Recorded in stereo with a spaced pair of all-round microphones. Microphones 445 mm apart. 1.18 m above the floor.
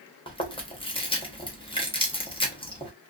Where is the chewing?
10° left (ahead or behind), 0.8 m.